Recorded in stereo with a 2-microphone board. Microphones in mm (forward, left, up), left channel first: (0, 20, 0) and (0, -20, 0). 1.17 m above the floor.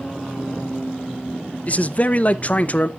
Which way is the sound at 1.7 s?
35° left (ahead or behind).